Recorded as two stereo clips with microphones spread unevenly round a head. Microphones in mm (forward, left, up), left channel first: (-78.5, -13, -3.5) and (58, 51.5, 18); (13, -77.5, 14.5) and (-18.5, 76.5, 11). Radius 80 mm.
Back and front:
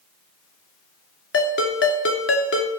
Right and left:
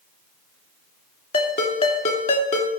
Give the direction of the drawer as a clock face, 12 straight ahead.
No drawer in this recording.